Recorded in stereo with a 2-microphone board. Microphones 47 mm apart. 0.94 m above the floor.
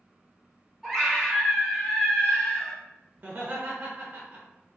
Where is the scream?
Centre (ahead or behind), 1.3 m.